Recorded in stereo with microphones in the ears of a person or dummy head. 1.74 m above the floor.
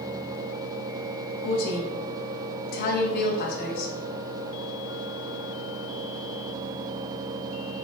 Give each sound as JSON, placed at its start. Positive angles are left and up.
{"t": 1.4, "sound": "a woman speaking", "side_deg": 50, "distance_m": 0.7}